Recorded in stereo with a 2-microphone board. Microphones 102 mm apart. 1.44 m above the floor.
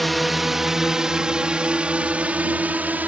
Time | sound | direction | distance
0.0 | a drone | centre (ahead or behind) | ?